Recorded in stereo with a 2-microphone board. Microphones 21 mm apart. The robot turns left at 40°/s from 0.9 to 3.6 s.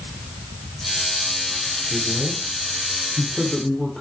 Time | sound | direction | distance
1.9 | a man speaking | 165° right | 8 m